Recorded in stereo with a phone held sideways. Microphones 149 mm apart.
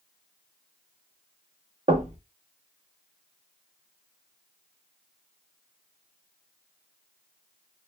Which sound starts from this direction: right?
Knocking, at 1.9 s.